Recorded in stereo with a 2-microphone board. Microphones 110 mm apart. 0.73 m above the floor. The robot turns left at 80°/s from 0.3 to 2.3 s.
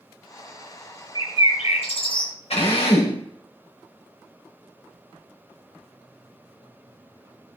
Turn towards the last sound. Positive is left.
turn(degrees=75)  # may be behind; listen again after turning